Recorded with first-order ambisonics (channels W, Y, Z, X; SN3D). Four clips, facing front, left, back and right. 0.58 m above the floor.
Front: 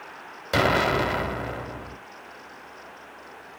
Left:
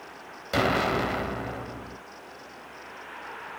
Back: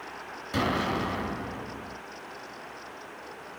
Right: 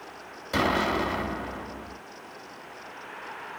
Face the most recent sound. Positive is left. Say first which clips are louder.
# even, front 7 dB
turn(degrees=15)